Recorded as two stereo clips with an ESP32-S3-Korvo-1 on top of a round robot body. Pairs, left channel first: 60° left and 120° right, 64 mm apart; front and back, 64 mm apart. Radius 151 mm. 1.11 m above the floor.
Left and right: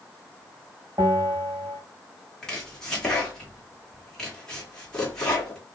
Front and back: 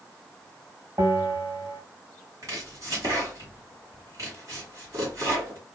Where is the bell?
150° right, 1.8 m.